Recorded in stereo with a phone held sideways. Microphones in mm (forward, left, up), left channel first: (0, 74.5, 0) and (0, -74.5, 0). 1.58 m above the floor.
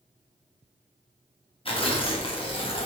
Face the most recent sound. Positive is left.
turn(degrees=35)  # may be behind; listen again after turning